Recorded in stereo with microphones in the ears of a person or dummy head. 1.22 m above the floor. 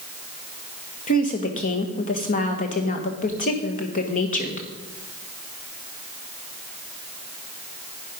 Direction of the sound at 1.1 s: 40° left (ahead or behind).